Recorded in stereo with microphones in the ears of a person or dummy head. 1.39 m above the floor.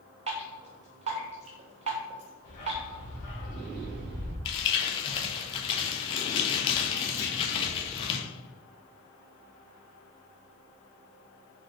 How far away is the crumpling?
About 0.9 m.